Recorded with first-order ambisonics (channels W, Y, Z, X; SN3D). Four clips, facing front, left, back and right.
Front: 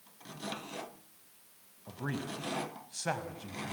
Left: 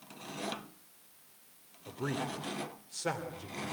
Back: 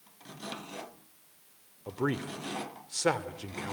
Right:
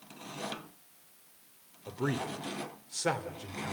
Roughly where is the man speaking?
Behind.